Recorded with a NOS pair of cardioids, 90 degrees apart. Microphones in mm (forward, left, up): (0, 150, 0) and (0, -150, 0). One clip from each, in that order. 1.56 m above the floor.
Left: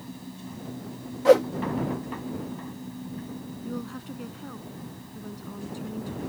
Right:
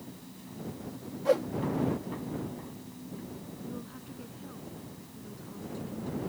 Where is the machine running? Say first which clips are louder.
Left 6 dB; 55° left.